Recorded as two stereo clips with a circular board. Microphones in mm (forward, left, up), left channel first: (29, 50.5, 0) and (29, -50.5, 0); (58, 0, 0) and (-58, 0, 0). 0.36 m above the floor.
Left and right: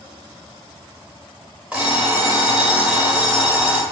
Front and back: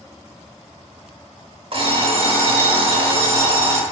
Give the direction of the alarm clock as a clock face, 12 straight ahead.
6 o'clock.